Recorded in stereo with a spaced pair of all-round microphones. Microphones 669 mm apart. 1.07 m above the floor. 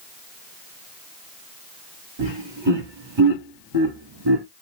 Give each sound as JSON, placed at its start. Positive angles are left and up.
{"t": 2.2, "sound": "laughter", "side_deg": -40, "distance_m": 2.5}